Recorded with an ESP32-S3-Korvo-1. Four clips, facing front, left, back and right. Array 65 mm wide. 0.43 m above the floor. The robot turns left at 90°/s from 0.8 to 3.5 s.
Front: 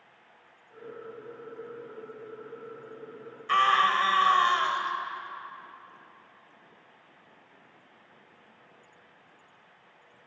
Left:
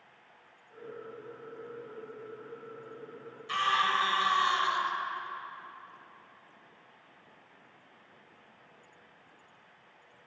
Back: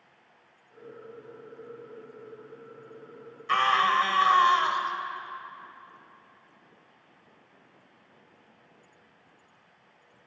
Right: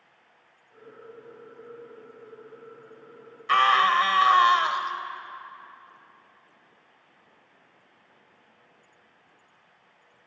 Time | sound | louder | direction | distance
3.5 | a scream | right 9 dB, even | 85° right | 2 m